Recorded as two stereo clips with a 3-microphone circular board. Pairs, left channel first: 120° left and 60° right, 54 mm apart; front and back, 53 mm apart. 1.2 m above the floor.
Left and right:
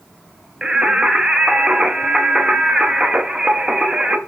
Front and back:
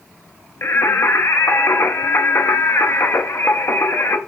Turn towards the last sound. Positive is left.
turn(degrees=15)